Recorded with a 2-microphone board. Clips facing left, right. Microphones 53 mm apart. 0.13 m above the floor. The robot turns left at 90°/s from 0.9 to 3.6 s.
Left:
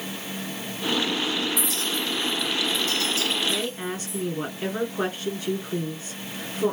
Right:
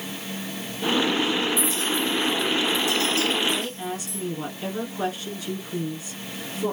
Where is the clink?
65° left (ahead or behind), 2 m; by 4.2 s 65° right (ahead or behind), 2 m.